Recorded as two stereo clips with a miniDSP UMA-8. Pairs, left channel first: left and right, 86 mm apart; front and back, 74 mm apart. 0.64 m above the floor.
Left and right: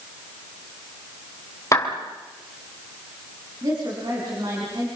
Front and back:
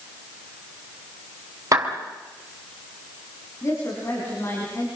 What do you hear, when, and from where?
1.7 s a clap: 140° left, 3 m
3.6 s a woman speaking: 50° right, 6.5 m